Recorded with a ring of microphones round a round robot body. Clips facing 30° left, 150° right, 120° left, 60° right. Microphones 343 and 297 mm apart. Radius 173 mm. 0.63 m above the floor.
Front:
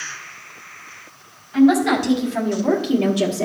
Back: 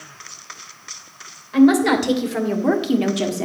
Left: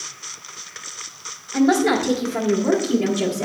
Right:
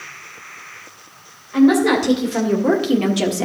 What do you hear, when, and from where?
1.5 s a woman speaking: 140° right, 2.5 m; by 3.5 s 70° right, 1.5 m